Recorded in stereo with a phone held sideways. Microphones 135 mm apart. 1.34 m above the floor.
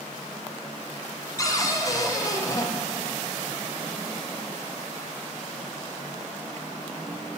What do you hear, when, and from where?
1.4 s a cupboard door: 25° left (ahead or behind), 0.6 m